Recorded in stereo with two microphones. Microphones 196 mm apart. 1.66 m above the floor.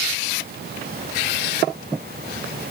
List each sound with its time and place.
Only background noise.